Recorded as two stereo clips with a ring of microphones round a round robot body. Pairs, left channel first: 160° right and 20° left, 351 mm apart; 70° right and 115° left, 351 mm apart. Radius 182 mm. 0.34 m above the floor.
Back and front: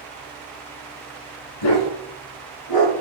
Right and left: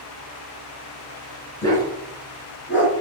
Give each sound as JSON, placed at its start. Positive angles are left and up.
{"t": 1.6, "sound": "a dog barking", "azimuth_deg": -150, "distance_m": 1.9}